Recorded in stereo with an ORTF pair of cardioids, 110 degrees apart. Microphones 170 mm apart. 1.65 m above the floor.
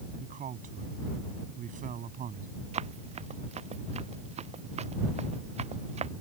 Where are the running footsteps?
40° right.